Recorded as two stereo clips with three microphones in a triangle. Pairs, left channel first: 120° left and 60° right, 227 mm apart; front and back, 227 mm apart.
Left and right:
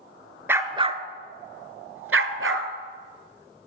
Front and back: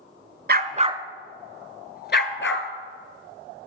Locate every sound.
0.5 s a dog barking: 140° right, 0.7 m; by 2.7 s 30° right, 1.2 m